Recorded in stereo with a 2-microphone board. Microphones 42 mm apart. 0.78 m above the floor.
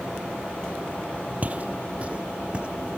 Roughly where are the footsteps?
Right.